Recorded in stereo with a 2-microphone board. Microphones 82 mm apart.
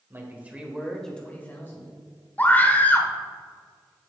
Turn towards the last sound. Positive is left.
turn(degrees=20)  # may be behind; listen again after turning